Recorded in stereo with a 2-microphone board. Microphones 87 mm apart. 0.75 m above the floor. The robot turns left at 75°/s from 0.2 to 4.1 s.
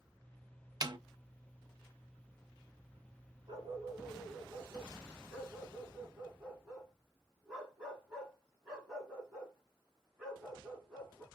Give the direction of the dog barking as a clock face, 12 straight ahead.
4 o'clock.